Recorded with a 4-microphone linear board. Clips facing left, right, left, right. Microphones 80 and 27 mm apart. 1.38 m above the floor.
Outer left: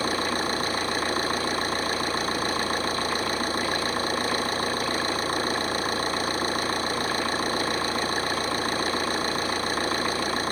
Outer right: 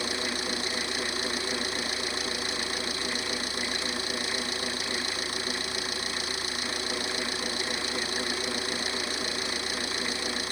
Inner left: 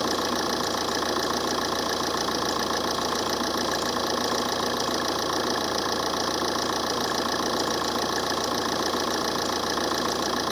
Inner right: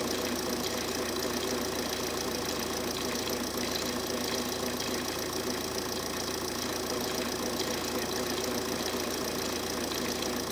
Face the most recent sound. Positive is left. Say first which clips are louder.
# outer left 6 dB, inner left 6 dB
turn(degrees=40)  # may be behind; listen again after turning